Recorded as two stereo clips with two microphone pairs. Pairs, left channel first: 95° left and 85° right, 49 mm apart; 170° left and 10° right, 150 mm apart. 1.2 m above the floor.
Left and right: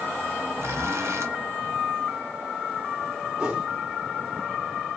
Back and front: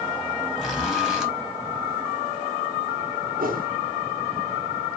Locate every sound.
0.6 s a zipper: 95° right, 1.3 m
3.4 s a whoosh: 10° right, 1.4 m